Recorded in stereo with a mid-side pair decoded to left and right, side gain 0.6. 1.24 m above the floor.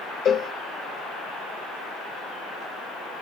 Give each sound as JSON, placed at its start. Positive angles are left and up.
{"t": 0.2, "sound": "a cowbell", "azimuth_deg": 45, "distance_m": 1.1}